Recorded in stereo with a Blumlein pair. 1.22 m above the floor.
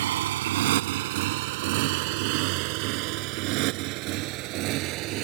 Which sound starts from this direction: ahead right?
A motorcycle, at 0.0 s.